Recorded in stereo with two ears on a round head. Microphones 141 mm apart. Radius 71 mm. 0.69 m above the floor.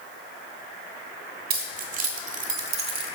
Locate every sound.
1.5 s keys jangling: 60° right (ahead or behind), 2.5 m; by 3.1 s 35° right (ahead or behind), 1.5 m